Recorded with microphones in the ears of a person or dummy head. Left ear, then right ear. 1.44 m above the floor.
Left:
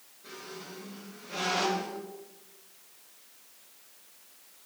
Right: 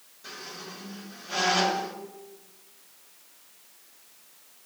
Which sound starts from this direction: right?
A squeak, at 0.2 s.